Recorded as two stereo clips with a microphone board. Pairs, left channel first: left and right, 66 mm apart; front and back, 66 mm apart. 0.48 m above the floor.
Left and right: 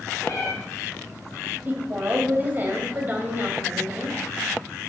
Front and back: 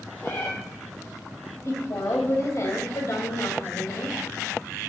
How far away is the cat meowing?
About 5 m.